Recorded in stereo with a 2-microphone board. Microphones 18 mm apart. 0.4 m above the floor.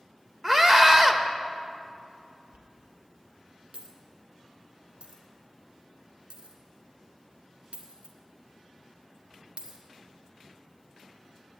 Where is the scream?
20° right (ahead or behind), 1.3 m.